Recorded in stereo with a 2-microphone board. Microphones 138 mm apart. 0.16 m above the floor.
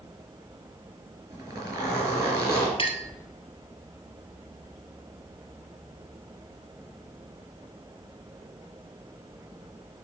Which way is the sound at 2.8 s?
40° left (ahead or behind).